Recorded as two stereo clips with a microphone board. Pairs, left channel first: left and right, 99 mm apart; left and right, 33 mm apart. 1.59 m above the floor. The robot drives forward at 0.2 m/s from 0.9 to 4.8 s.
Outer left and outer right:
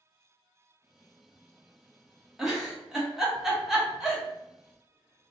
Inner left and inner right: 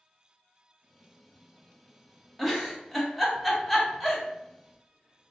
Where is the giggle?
5° right (ahead or behind), 0.9 m.